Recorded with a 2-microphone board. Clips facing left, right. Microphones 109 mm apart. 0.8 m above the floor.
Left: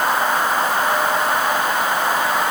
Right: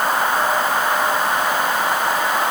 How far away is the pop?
I don't hear a pop.